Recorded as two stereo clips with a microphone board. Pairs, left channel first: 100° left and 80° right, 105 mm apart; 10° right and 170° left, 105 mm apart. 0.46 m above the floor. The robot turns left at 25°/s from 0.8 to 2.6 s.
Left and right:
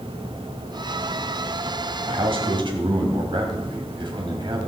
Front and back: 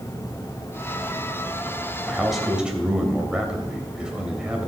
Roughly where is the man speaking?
Right.